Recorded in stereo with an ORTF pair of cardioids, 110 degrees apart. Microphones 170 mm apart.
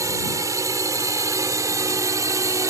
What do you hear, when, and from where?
0.0 s a drone: 20° right